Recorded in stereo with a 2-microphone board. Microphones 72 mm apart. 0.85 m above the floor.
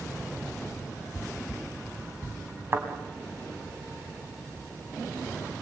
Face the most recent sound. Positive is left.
turn(degrees=-35)  # may be behind; listen again after turning